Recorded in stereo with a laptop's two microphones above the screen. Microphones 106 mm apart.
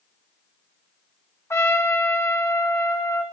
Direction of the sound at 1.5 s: 25° left (ahead or behind).